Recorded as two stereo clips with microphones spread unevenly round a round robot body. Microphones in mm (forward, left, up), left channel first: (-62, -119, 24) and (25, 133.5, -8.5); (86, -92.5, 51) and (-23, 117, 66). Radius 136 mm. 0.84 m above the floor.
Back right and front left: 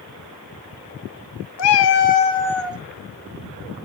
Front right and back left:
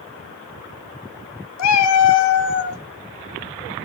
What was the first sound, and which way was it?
A cat meowing, 75° right.